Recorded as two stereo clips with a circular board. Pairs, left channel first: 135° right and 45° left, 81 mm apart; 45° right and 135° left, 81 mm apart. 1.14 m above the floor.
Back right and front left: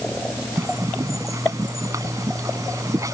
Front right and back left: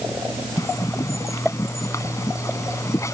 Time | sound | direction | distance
0.6 | a bird | 5° left | ?